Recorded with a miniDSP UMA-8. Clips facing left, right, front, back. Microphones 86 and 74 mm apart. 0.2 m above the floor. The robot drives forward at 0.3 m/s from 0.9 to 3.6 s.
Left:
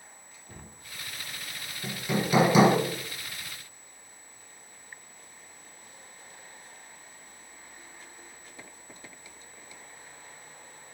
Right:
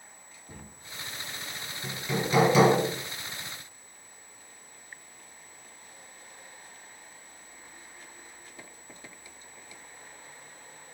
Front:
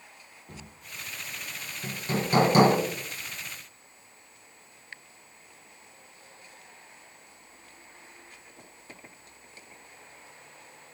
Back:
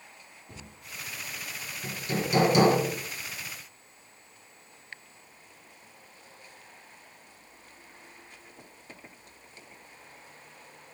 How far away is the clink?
I don't hear a clink.